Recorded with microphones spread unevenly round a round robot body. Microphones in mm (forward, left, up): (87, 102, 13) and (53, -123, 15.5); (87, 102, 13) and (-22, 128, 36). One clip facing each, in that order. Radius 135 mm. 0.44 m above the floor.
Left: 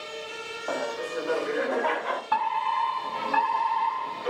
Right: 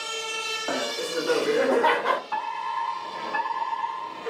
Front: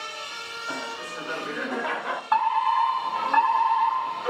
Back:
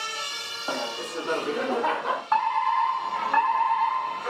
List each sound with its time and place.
0.7 s laughter: 160° right, 1.4 m; by 2.2 s 120° right, 1.6 m
2.3 s a fire alarm: 65° left, 7.5 m